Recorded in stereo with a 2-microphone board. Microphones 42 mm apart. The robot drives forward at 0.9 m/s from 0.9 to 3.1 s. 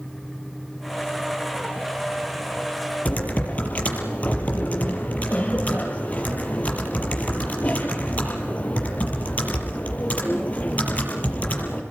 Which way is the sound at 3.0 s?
35° left (ahead or behind).